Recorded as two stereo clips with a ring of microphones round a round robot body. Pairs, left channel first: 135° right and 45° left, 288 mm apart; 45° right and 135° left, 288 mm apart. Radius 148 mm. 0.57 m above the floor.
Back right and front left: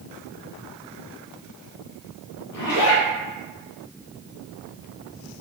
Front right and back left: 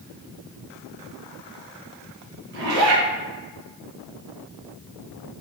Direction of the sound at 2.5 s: 165° right.